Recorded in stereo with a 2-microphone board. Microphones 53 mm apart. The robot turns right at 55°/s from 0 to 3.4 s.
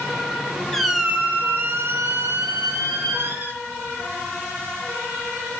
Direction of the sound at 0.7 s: 175° left.